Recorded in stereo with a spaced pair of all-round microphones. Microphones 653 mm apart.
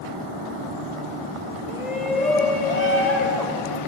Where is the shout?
80° left, 3 m.